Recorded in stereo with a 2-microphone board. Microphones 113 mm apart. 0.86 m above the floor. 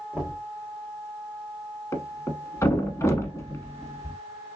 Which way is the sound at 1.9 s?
25° left (ahead or behind).